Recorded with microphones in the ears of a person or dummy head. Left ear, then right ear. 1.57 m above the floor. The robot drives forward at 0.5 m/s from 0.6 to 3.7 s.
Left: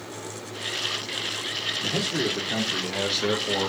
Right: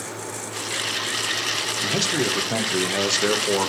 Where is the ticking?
I don't hear ticking.